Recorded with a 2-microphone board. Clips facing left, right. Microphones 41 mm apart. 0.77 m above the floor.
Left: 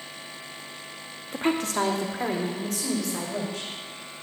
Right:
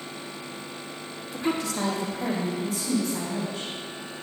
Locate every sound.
1.3 s a woman speaking: 40° left (ahead or behind), 1.2 m; by 3.7 s 80° left, 4.5 m